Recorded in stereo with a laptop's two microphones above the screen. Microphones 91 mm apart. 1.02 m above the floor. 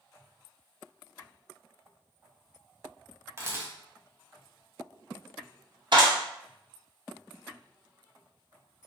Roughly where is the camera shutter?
Right.